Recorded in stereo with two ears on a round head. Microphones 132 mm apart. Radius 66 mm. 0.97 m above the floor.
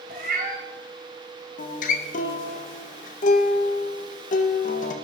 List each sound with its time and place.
0.1 s a cat meowing: 60° right (ahead or behind), 2.5 m
1.6 s a guitar: 55° left (ahead or behind), 0.6 m